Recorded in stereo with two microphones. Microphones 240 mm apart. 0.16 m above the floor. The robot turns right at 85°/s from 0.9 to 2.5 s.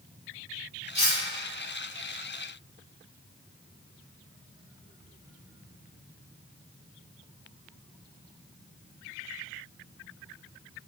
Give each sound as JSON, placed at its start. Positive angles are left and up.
{"t": 0.9, "sound": "cutlery clinking", "side_deg": -25, "distance_m": 1.0}